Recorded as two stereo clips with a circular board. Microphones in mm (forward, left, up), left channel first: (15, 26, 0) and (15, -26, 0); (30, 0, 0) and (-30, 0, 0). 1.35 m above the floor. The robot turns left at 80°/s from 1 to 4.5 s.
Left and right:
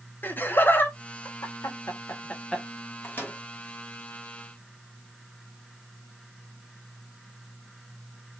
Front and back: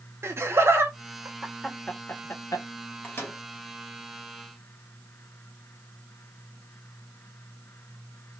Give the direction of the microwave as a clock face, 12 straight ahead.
10 o'clock.